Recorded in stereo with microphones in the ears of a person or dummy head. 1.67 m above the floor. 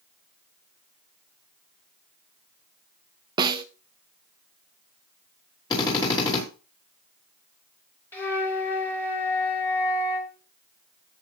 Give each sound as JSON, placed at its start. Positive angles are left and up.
{"t": 3.4, "sound": "a snare drum", "side_deg": -30, "distance_m": 0.8}
{"t": 5.7, "sound": "a drill", "side_deg": 20, "distance_m": 3.5}
{"t": 8.1, "sound": "a flute", "side_deg": 10, "distance_m": 2.5}